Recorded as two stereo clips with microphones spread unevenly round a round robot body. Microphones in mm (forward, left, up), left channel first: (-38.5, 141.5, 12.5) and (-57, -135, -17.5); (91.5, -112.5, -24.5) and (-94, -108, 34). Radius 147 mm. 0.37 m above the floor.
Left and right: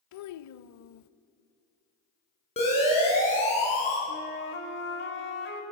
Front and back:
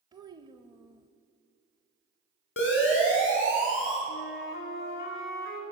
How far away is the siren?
About 6 m.